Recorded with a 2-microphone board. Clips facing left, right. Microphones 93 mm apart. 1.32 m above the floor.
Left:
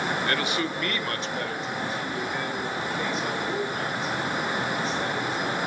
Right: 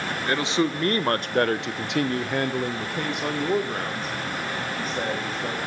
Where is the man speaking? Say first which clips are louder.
Right 3 dB; 15° right (ahead or behind), 1.2 m; by 5.6 s 40° right (ahead or behind), 3 m.